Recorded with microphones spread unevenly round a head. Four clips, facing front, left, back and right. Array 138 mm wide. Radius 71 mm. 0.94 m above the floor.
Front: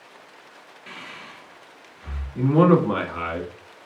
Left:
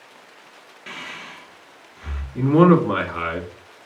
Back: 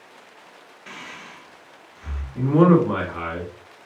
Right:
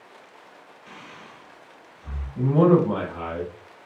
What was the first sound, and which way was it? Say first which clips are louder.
Breathing: left 7 dB, back 1 dB; 95° left.